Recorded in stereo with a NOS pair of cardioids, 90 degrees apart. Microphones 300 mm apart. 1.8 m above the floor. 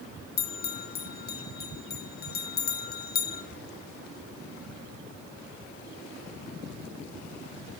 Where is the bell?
30° left, 0.8 m.